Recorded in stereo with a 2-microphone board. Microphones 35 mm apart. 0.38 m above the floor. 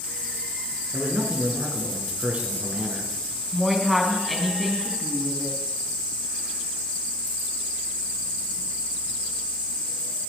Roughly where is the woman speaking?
Centre.